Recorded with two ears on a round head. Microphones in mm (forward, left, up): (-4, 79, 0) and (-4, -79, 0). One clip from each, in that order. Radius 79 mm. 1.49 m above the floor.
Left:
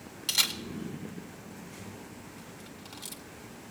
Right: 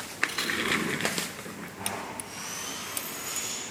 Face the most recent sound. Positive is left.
turn(degrees=65)  # may be behind; listen again after turning